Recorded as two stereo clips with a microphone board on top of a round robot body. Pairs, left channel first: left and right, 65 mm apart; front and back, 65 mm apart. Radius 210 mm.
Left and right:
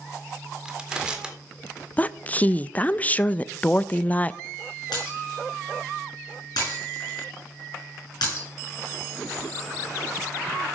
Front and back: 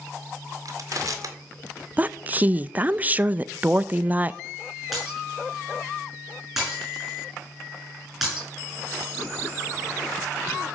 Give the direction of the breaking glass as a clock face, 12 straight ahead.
9 o'clock.